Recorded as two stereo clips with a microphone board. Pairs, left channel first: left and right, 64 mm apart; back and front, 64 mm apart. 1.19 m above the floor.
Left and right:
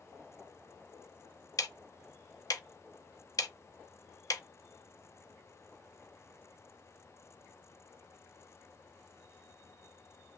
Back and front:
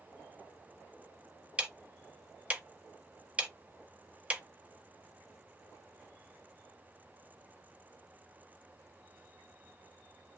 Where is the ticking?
70° left, 0.5 m.